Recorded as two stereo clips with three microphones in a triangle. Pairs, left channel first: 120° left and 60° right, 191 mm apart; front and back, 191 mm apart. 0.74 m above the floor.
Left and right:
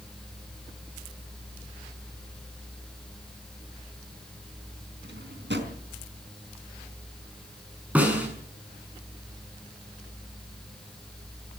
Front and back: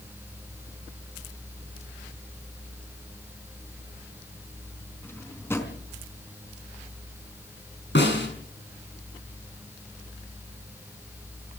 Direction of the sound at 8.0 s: 20° left.